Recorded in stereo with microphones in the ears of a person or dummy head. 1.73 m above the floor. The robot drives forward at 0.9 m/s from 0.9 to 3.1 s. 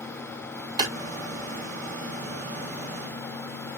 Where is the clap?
20° right (ahead or behind), 3.5 m.